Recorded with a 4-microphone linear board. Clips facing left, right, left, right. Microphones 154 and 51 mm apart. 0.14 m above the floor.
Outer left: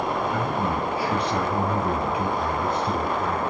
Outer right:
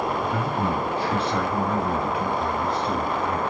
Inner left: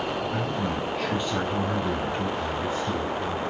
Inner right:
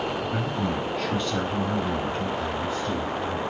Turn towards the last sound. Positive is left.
turn(degrees=55)  # may be behind; listen again after turning